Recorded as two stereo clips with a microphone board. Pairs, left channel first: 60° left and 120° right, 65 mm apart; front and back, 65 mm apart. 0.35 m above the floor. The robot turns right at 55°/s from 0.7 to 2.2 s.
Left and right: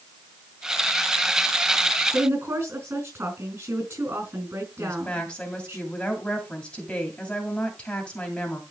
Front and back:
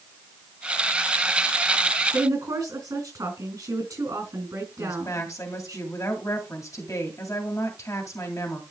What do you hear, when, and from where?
2.1 s a woman speaking: 165° right, 4 m; by 5.8 s 160° right, 4 m
4.8 s a woman speaking: 10° right, 2 m